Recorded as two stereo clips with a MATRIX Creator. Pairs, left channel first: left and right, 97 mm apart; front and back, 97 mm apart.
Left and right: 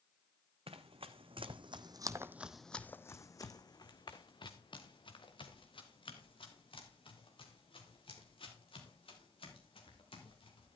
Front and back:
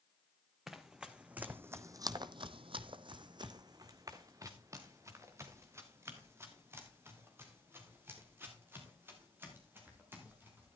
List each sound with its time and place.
0.7 s running footsteps: 95° right, 1.5 m; by 10.8 s 110° left, 6.5 m